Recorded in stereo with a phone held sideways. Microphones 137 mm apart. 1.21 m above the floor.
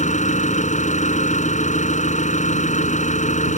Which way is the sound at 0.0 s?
60° left (ahead or behind).